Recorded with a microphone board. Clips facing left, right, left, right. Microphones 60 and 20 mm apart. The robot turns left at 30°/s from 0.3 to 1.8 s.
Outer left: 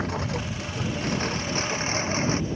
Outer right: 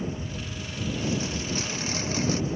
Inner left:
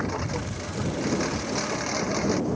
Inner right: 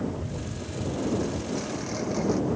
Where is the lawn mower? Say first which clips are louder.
Outer left 5 dB, inner left 3 dB; 80° left; by 2.6 s 35° left.